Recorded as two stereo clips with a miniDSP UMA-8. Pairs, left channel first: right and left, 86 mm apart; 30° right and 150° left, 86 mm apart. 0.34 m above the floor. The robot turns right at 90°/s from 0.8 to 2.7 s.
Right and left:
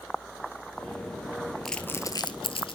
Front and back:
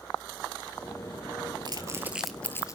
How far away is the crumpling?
About 1.1 m.